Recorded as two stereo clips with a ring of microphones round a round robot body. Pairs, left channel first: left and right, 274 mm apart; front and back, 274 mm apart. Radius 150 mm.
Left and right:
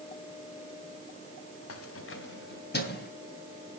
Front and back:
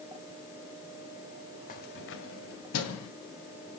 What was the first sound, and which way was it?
Keys jangling, 60° left.